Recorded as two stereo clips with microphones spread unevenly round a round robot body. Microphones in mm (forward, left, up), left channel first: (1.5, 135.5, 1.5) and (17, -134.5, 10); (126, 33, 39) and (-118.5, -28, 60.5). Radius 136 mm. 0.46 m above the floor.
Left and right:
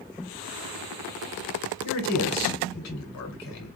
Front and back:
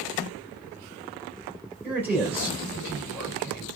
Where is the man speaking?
110° left, 2.5 m.